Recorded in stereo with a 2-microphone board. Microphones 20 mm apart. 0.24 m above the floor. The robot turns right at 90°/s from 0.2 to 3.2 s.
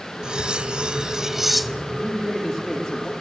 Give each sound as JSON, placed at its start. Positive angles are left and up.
{"t": 0.2, "sound": "cutlery clinking", "azimuth_deg": -120, "distance_m": 1.0}
{"t": 2.0, "sound": "a man speaking", "azimuth_deg": -55, "distance_m": 7.5}